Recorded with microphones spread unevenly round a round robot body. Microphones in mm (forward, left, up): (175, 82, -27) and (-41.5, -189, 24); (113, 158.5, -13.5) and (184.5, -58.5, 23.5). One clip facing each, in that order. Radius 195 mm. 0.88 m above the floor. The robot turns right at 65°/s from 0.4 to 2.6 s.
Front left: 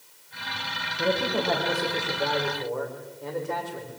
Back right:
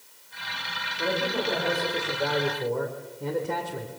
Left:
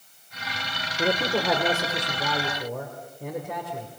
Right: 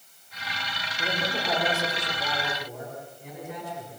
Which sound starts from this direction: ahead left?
A man speaking, at 1.0 s.